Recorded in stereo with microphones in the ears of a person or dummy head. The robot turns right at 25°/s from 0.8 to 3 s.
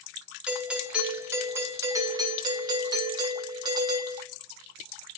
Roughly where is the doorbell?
Centre.